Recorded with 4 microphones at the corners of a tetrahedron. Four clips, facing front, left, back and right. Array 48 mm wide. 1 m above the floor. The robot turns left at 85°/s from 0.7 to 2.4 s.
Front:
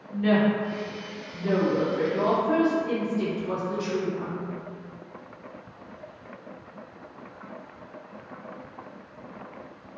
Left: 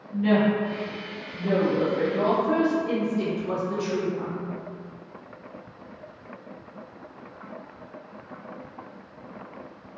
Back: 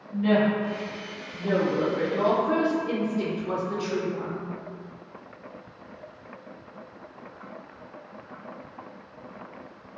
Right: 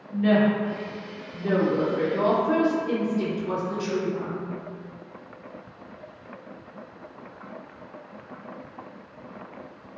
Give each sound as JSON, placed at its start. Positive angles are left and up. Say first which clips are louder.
{"t": 0.1, "sound": "a woman speaking", "louder": "right 1 dB, even", "azimuth_deg": -70, "distance_m": 0.7}